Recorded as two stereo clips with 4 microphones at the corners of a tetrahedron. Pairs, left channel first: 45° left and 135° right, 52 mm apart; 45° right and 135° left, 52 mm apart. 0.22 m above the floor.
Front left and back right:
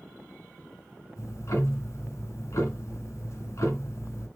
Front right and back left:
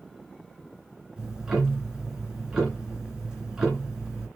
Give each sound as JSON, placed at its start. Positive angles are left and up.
{"t": 1.2, "sound": "ticking", "azimuth_deg": 60, "distance_m": 3.0}